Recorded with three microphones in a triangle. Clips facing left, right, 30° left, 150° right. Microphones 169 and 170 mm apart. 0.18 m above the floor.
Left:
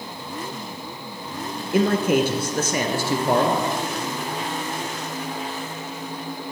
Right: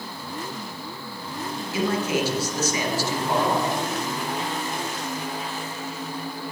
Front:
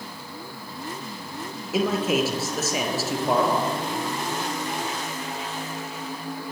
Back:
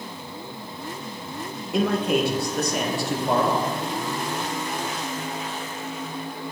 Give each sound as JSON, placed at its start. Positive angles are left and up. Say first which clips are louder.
{"t": 1.7, "sound": "a man speaking", "louder": "left 6 dB, back 1 dB", "azimuth_deg": 115, "distance_m": 3.0}